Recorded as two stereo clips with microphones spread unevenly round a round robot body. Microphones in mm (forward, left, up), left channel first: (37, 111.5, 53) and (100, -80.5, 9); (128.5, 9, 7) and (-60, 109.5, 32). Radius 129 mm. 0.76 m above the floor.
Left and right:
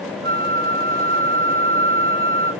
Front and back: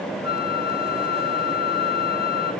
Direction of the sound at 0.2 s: 135° right.